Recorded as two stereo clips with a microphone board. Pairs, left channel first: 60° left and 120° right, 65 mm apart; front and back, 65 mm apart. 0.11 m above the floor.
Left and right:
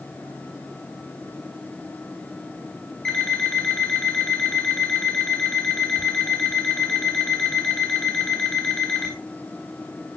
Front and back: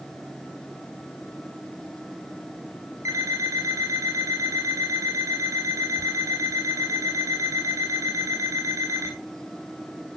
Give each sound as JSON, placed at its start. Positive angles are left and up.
{"t": 3.0, "sound": "an alarm clock", "azimuth_deg": 140, "distance_m": 4.5}